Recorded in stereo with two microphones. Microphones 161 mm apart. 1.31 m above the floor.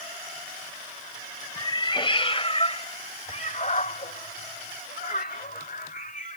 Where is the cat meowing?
30° left (ahead or behind); by 6.4 s 60° left (ahead or behind).